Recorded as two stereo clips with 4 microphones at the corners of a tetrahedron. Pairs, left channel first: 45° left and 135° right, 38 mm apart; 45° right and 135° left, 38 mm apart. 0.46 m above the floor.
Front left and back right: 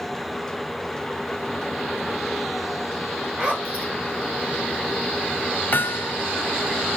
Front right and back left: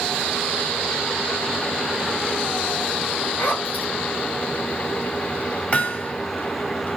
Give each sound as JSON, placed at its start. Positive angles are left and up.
{"t": 3.4, "sound": "a zipper", "azimuth_deg": -80, "distance_m": 7.0}
{"t": 5.7, "sound": "hammering", "azimuth_deg": 10, "distance_m": 2.0}